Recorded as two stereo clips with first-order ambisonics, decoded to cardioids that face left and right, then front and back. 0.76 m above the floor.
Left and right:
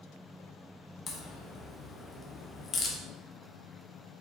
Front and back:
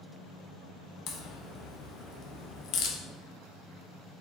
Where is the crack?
30° left, 0.7 m.